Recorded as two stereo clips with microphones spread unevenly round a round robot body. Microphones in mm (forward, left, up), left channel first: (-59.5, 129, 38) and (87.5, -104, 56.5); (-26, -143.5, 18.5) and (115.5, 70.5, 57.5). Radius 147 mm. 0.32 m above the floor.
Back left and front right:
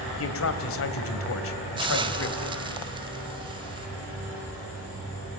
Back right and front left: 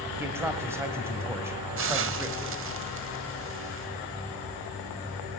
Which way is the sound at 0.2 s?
140° left.